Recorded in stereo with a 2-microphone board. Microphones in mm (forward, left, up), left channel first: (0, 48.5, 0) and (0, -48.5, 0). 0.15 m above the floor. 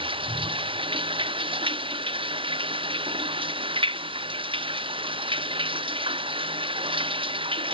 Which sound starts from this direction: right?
Running water, at 0.0 s.